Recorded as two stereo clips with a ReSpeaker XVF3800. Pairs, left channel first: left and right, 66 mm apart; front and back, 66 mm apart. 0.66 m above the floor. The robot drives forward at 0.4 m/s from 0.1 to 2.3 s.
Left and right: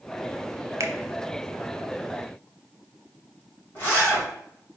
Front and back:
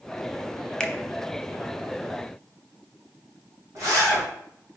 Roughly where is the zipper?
Behind left.